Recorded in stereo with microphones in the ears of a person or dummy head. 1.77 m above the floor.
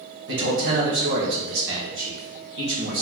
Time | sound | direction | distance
0.3 | a man speaking | 60° right (ahead or behind) | 1.5 m